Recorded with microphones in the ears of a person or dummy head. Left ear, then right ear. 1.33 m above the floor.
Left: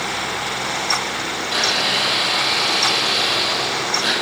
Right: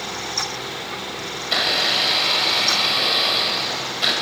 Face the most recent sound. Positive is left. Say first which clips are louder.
# even
turn(degrees=-25)  # may be behind; listen again after turning